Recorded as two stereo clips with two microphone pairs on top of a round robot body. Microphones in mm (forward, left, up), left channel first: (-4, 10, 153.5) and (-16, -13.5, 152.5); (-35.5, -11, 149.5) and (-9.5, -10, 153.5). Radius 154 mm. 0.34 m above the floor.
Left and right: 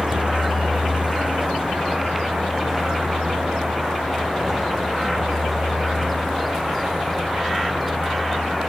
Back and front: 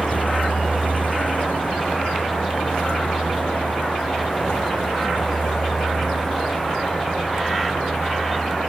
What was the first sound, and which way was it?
A vehicle, 160° right.